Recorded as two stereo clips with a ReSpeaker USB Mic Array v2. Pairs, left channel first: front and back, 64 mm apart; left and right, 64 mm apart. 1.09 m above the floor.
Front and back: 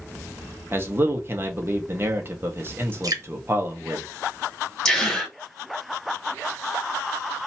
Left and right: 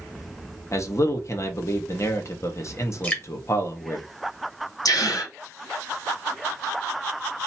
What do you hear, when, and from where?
0.7 s a man speaking: 130° left, 1.3 m
3.0 s dripping: 155° left, 1.5 m
4.8 s a gasp: 80° left, 2 m